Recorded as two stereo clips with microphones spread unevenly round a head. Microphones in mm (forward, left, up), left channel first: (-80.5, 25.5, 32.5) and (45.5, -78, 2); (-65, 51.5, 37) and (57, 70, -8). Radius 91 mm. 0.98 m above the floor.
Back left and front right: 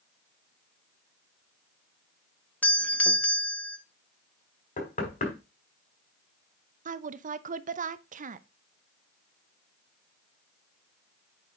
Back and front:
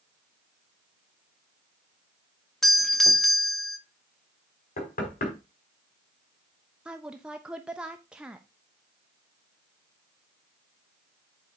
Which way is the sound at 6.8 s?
65° right.